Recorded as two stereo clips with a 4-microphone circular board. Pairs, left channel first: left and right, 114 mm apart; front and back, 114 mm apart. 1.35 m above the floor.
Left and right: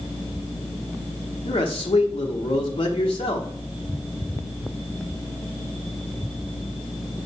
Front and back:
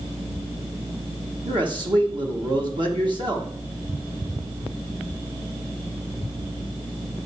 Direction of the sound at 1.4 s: 135° left.